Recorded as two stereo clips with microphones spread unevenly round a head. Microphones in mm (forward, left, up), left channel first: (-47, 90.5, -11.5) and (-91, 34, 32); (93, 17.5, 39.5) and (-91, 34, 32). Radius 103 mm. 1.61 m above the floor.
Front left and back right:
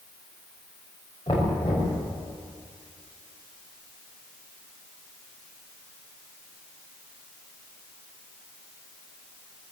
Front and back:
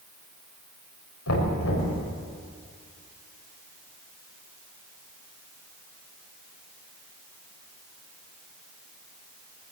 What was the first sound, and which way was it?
Knocking, 25° right.